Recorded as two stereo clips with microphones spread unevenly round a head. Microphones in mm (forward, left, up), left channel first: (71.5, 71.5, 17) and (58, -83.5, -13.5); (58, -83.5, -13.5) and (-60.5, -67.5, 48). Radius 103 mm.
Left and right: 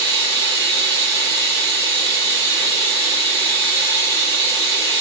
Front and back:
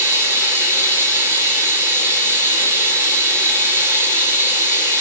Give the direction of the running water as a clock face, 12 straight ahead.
7 o'clock.